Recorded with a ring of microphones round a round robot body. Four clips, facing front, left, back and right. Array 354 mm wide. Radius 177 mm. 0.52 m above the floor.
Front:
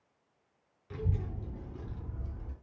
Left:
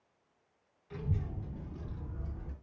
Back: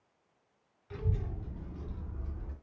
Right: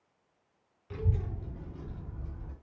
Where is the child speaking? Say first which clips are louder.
Right 2 dB, front 1 dB; 55° right, 1.4 m; by 2.5 s 25° left, 1.8 m.